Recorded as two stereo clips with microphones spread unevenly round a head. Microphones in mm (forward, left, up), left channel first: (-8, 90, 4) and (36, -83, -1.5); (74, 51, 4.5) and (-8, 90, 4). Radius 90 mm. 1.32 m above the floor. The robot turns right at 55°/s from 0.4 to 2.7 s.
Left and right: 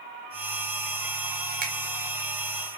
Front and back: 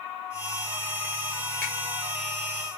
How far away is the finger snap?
About 0.6 m.